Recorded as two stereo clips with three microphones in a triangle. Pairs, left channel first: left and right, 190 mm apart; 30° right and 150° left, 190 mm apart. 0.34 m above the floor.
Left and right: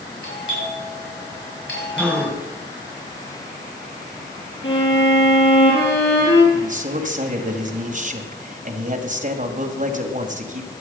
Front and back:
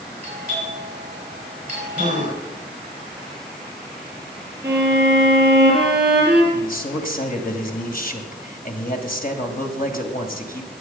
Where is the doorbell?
95° left, 8 m.